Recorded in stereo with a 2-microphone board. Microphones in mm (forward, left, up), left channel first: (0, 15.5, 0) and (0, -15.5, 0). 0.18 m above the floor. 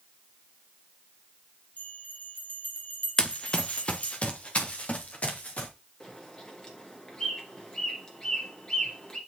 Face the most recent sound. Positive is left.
turn(degrees=25)  # may be behind; listen again after turning